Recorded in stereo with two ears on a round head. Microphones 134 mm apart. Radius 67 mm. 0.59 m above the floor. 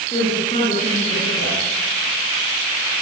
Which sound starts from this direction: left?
A woman speaking, at 0.1 s.